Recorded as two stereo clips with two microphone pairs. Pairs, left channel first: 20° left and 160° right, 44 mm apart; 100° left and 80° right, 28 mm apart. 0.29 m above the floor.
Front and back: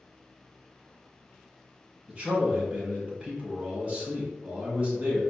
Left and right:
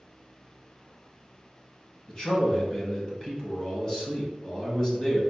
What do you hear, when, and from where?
2.1 s a man speaking: 150° left, 1.9 m